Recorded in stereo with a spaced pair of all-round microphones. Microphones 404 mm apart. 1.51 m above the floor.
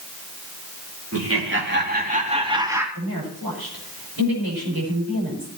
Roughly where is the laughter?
Right.